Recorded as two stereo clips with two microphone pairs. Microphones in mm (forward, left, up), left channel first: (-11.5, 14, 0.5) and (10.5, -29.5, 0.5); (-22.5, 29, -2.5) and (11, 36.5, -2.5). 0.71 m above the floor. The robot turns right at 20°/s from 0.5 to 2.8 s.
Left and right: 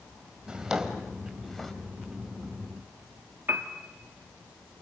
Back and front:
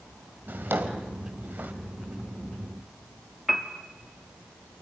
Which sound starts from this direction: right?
A piano, at 3.5 s.